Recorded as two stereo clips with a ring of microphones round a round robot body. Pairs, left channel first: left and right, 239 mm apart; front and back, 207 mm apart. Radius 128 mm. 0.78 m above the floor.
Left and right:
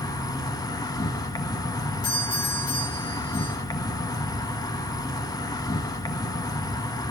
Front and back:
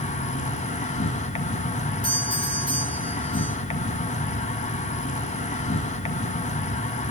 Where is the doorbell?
65° left, 10 m.